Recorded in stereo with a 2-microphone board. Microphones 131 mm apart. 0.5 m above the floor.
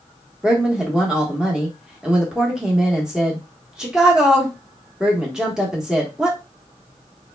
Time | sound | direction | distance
0.4 | a woman speaking | 5° right (ahead or behind) | 0.9 m